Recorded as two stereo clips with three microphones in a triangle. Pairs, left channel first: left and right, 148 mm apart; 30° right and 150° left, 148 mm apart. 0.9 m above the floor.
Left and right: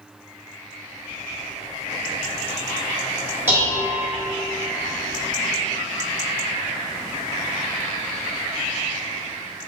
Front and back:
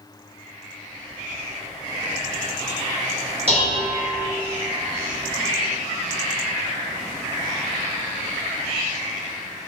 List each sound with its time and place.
3.5 s dishes clattering: 165° right, 1.1 m